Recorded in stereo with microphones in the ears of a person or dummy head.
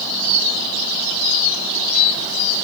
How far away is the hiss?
I don't hear a hiss.